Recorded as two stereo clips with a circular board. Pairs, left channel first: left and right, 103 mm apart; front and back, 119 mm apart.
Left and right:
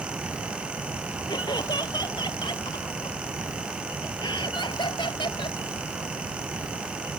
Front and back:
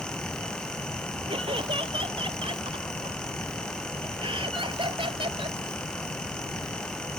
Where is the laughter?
135° left; by 5.6 s 130° left.